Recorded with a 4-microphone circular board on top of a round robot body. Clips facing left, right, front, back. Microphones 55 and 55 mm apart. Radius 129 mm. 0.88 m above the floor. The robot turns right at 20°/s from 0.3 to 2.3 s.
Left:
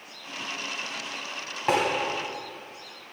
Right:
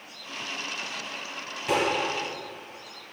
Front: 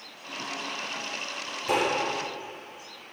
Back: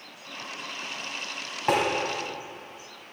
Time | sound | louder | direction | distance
1.7 | tapping | left 2 dB, back 2 dB | 140° left | 1.2 m